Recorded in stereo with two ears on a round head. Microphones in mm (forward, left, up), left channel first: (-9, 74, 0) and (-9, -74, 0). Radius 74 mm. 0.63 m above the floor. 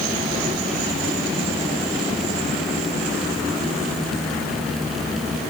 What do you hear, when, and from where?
Only background noise.